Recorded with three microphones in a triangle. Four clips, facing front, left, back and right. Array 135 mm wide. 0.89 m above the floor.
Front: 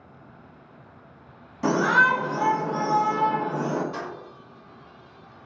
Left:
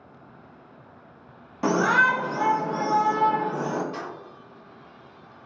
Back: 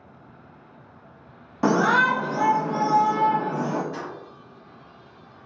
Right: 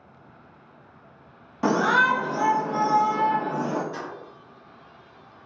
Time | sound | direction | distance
1.6 | a shout | straight behind | 0.6 m
3.9 | keys jangling | 20° left | 1.1 m